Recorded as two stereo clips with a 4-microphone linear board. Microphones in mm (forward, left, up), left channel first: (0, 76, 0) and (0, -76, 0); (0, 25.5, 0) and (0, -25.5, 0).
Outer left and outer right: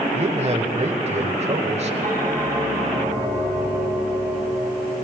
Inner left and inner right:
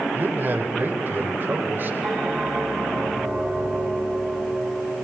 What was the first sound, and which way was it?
A man speaking, 45° right (ahead or behind).